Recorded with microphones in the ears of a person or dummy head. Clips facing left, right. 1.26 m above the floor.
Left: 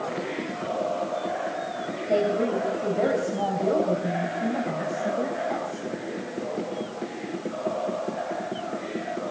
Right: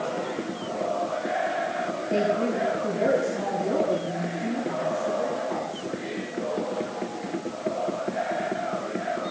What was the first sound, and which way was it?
A woman speaking, 60° left (ahead or behind).